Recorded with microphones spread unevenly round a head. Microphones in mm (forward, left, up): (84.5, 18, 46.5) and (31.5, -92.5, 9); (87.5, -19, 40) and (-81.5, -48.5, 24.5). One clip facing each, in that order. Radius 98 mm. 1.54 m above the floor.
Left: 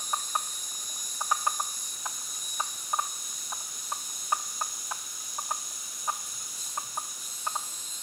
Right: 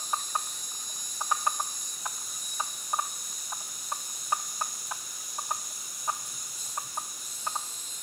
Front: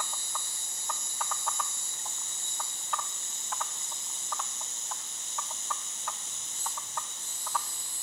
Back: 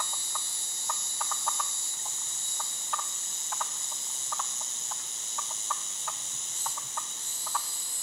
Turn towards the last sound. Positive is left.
turn(degrees=175)